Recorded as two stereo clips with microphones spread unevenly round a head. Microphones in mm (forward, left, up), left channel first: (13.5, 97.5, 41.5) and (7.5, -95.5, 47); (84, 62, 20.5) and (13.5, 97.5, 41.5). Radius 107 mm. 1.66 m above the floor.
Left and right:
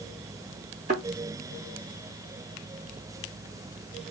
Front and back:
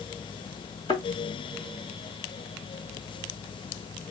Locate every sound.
0.9 s a thud: 45° right, 2 m